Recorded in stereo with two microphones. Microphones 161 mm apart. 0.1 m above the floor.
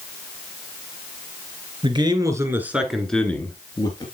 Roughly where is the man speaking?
Right.